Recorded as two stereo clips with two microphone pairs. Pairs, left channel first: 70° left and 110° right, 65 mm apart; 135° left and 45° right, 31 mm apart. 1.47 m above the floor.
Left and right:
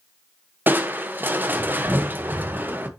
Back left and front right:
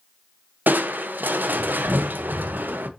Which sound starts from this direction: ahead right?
Crushing, at 0.7 s.